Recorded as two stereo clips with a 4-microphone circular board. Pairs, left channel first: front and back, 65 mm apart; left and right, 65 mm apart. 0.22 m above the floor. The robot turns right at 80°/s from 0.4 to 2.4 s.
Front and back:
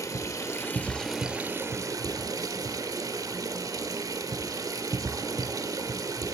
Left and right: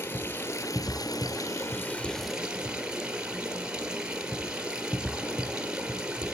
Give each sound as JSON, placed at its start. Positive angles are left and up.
{"t": 0.0, "sound": "running water", "azimuth_deg": 30, "distance_m": 1.1}